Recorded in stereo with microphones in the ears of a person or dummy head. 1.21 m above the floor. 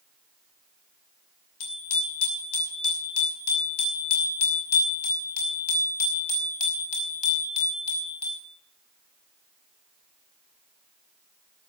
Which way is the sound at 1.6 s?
70° left (ahead or behind).